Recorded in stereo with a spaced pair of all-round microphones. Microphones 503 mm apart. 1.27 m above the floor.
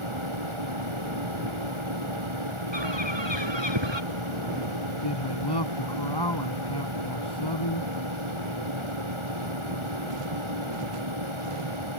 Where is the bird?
60° right (ahead or behind).